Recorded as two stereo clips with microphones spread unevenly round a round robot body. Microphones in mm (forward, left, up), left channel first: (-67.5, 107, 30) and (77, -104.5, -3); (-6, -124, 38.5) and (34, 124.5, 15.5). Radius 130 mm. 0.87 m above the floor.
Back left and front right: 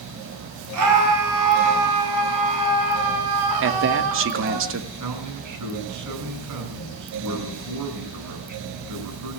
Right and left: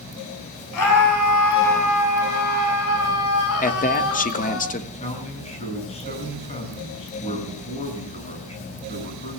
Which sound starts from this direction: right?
A scream, at 0.7 s.